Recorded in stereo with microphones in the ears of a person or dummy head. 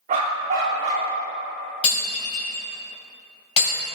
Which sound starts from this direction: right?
A dog barking, at 0.1 s.